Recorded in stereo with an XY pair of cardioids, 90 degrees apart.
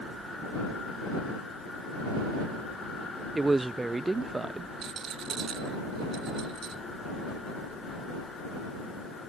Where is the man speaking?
20° right.